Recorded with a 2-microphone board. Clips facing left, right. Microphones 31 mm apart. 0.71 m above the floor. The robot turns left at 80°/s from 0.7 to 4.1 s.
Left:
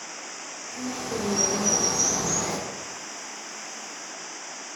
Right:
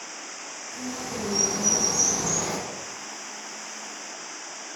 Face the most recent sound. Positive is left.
turn(degrees=-130)